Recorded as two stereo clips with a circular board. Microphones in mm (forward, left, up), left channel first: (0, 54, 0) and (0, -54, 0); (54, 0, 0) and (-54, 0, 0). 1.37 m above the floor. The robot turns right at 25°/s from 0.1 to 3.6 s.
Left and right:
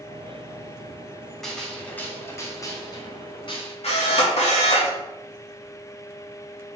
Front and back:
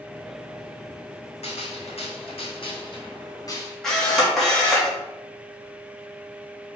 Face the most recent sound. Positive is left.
turn(degrees=85)